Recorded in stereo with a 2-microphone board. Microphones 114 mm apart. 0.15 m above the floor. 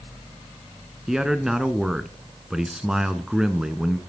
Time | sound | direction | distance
1.1 | a man speaking | 5° right (ahead or behind) | 1.4 m